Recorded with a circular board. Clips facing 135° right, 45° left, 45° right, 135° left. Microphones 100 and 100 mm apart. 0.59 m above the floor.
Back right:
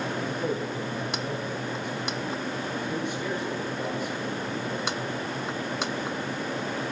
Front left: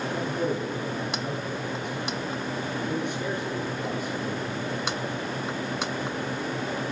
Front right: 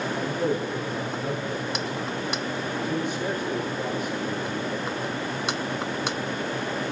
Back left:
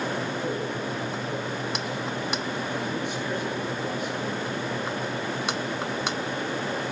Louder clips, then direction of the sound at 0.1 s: Front left 2 dB, front right 3 dB; 25° left.